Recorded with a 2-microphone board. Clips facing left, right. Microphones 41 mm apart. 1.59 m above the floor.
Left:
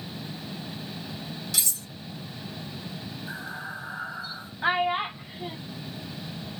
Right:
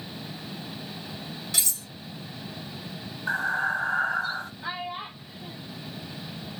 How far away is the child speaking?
About 0.6 m.